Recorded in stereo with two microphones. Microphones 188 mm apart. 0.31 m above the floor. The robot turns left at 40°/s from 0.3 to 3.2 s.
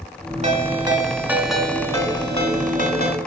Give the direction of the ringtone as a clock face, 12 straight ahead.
5 o'clock.